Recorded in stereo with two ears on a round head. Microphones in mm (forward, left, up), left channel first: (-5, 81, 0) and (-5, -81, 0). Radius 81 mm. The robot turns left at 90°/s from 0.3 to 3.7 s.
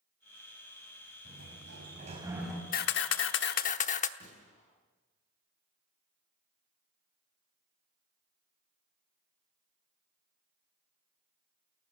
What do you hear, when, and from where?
1.2 s a sliding door: 70° right, 4.5 m; by 2.6 s 170° left, 4.5 m
2.7 s a camera shutter: 130° left, 1.0 m; by 4.1 s 45° left, 1.0 m
4.2 s a gunshot: 35° left (ahead or behind), 8.5 m